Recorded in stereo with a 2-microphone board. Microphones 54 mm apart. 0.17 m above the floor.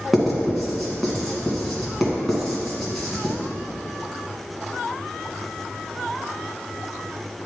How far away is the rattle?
I don't hear a rattle.